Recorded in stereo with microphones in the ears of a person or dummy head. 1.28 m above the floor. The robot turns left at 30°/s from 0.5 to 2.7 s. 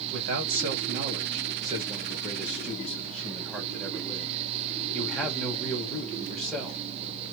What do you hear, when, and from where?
0.1 s a man speaking: 115° right, 1.9 m; by 6.8 s straight behind, 1.9 m